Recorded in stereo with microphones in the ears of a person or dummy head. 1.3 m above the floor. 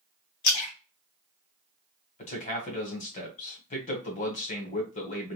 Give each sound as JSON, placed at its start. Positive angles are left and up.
{"t": 0.4, "sound": "a splash", "side_deg": 55, "distance_m": 1.0}
{"t": 2.2, "sound": "a man speaking", "side_deg": 40, "distance_m": 1.1}